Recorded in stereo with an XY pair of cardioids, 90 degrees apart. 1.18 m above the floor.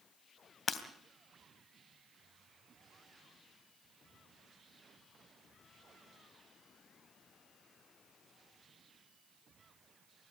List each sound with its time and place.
0.7 s breaking glass: 50° left, 3 m